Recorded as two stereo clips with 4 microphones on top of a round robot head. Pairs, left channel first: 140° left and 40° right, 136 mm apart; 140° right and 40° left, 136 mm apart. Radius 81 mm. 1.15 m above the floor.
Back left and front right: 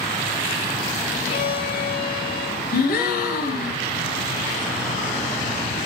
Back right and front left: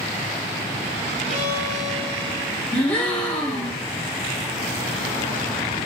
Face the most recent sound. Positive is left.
turn(degrees=145)